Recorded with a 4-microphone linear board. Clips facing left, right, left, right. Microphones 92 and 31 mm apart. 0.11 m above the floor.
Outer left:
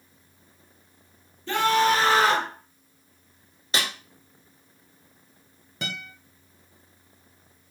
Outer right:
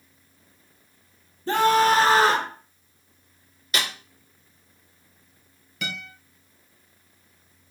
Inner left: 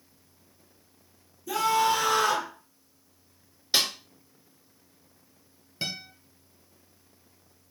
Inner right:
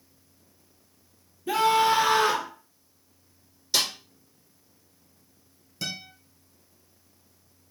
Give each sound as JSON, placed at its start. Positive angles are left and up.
{"t": 1.5, "sound": "a scream", "side_deg": -40, "distance_m": 1.4}
{"t": 3.7, "sound": "a snare drum", "side_deg": 30, "distance_m": 1.5}
{"t": 5.8, "sound": "a guitar", "side_deg": 35, "distance_m": 1.2}